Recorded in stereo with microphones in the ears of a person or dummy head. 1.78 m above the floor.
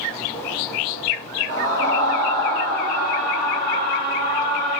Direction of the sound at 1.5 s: 70° right (ahead or behind).